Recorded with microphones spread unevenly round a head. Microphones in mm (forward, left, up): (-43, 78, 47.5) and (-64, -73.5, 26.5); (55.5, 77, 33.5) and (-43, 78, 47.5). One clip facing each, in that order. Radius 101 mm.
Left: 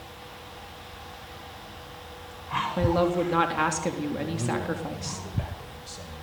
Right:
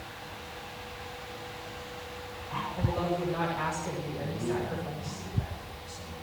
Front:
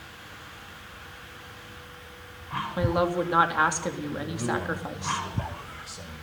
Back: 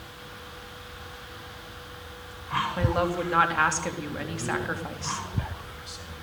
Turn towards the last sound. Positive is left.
turn(degrees=50)